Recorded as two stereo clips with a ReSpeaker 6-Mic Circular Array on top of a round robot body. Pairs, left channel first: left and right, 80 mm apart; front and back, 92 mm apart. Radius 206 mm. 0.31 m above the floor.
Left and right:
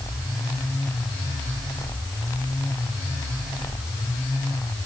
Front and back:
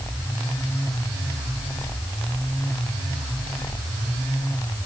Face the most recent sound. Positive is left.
No sound to turn to.